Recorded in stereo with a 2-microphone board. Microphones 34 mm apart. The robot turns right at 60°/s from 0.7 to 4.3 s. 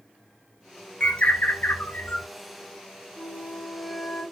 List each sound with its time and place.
1.0 s a bird: 40° left, 0.5 m; by 2.3 s 115° left, 0.5 m
3.2 s a flute: 35° left, 2.5 m; by 4.2 s 100° left, 2.5 m